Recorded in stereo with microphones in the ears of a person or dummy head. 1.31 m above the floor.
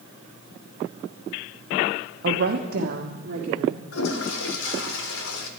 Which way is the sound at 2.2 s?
55° right (ahead or behind).